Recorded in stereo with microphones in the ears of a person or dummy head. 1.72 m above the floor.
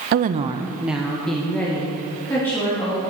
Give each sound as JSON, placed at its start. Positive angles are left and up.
{"t": 0.1, "sound": "a woman speaking", "side_deg": -50, "distance_m": 0.5}